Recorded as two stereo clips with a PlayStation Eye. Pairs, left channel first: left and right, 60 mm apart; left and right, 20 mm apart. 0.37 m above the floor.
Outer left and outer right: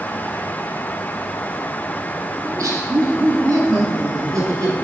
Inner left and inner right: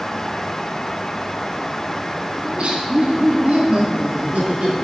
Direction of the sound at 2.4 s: 70° right (ahead or behind).